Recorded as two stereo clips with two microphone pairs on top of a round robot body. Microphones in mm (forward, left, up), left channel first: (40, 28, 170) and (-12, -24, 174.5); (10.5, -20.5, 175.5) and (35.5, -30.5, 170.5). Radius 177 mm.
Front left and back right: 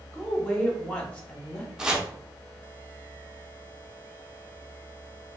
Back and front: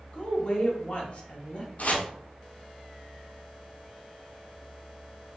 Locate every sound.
0.1 s a woman speaking: 110° left, 1.1 m
1.8 s chopping: 145° left, 0.7 m